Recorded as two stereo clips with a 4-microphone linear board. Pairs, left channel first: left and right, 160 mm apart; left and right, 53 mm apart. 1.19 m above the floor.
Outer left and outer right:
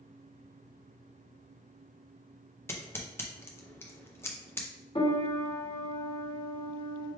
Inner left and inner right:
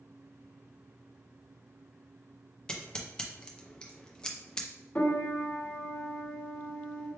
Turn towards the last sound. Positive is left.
turn(degrees=35)  # may be behind; listen again after turning